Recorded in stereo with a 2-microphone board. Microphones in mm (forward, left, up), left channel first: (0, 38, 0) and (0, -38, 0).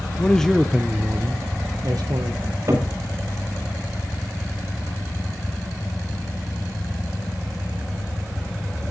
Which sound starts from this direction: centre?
A man speaking, at 0.2 s.